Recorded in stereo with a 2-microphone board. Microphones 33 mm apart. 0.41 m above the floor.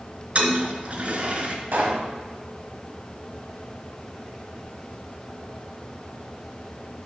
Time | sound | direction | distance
0.3 | a toilet flushing | 50° right (ahead or behind) | 1.3 m
1.7 | a pop | 75° right (ahead or behind) | 1.6 m